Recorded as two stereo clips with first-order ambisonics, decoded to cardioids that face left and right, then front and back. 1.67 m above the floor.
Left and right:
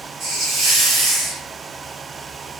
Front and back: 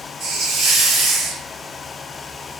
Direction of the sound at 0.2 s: 120° right.